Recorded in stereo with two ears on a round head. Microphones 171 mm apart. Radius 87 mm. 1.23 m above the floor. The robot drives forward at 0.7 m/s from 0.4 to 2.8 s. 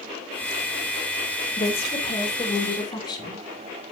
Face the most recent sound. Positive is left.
turn(degrees=25)  # may be behind; listen again after turning